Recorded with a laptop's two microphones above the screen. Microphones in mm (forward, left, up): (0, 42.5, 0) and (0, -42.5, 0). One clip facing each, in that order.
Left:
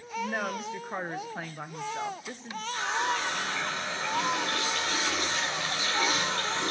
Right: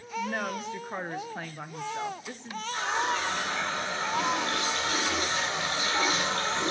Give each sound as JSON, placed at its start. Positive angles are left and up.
{"t": 0.2, "sound": "a woman speaking", "side_deg": 5, "distance_m": 0.5}
{"t": 2.7, "sound": "a running tap", "side_deg": -40, "distance_m": 3.0}